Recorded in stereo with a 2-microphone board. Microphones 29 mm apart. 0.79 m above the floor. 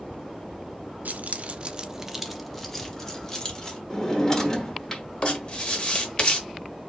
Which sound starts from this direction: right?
Keys jangling, at 1.1 s.